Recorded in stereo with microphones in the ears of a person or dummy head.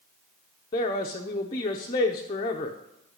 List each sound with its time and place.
0.7 s a man speaking: 20° left (ahead or behind), 0.7 m